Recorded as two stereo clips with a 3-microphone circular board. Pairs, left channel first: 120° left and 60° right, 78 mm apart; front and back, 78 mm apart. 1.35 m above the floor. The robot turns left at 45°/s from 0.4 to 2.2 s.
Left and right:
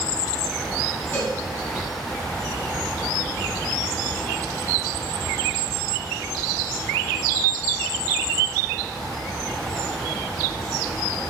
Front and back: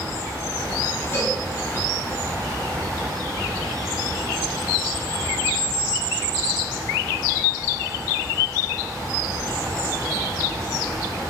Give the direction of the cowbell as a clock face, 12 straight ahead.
10 o'clock.